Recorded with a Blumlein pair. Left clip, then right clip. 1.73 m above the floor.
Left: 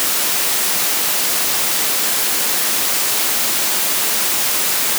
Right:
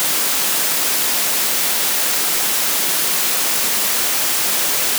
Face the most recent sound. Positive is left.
No sound to turn to.